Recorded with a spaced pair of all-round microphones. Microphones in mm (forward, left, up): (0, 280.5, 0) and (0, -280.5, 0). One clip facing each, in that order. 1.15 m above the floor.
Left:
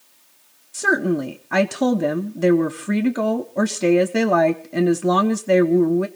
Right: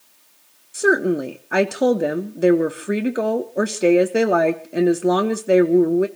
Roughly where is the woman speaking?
Left.